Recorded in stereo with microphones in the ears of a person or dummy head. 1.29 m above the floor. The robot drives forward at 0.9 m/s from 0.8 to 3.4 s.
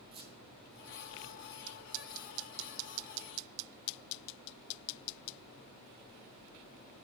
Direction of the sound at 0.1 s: 30° right (ahead or behind).